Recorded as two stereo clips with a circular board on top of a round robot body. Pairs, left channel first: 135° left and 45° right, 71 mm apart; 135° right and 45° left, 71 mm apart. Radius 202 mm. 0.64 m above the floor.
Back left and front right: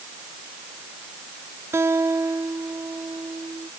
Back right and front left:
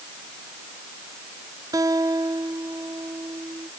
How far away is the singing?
No singing in this recording.